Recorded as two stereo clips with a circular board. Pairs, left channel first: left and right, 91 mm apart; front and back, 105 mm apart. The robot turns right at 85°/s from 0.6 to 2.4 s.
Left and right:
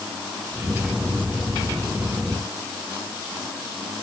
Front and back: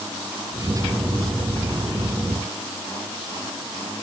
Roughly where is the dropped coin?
I don't hear a dropped coin.